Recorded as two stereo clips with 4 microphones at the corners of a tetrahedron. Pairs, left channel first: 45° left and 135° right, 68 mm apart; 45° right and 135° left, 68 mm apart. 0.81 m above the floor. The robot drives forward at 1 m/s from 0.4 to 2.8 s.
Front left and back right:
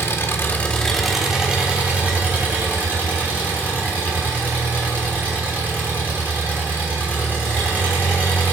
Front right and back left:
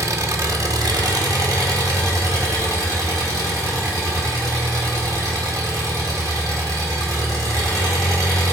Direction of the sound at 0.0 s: 95° left.